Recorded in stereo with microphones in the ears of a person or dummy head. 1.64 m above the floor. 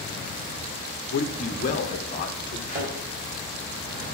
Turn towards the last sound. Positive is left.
turn(degrees=-60)  # may be behind; listen again after turning